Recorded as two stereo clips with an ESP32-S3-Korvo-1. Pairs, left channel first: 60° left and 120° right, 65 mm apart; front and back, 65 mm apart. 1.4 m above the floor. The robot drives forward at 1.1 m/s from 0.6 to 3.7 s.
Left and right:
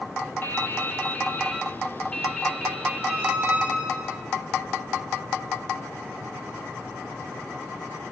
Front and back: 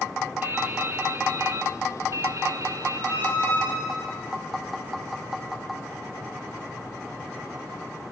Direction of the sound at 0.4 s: 115° left.